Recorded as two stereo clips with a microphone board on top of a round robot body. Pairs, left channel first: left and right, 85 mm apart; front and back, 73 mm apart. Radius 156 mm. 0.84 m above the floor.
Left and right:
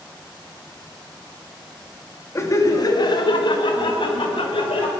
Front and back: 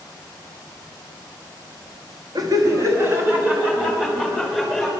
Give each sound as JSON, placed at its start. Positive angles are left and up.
{"t": 2.4, "sound": "laughter", "azimuth_deg": 145, "distance_m": 1.7}